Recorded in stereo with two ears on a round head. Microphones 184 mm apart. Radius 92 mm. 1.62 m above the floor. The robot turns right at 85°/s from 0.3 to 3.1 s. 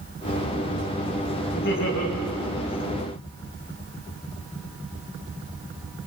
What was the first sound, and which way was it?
Laughter, 40° left.